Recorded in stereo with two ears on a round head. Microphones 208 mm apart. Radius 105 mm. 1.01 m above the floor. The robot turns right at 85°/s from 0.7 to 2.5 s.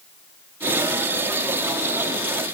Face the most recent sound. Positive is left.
No sound to turn to.